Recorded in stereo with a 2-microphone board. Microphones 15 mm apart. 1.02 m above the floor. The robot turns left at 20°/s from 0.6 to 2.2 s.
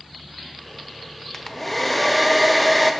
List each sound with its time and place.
1.3 s a hair dryer: 20° left (ahead or behind), 0.5 m; by 2.9 s 5° left (ahead or behind), 0.5 m